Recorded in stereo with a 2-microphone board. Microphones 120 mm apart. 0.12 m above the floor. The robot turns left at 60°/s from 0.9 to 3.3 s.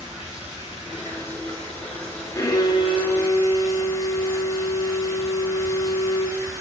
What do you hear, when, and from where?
0.0 s running water: 10° right, 3.5 m; by 6.6 s 155° right, 3.5 m
2.4 s a violin: 140° left, 0.8 m; by 6.4 s 85° left, 0.8 m